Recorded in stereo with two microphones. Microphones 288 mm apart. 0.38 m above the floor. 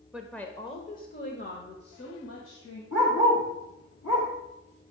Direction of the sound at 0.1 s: 5° right (ahead or behind).